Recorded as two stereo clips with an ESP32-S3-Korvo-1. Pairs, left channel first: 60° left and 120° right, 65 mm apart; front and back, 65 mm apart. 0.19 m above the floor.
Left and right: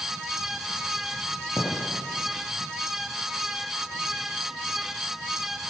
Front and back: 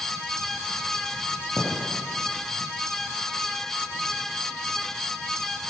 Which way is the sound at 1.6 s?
120° left.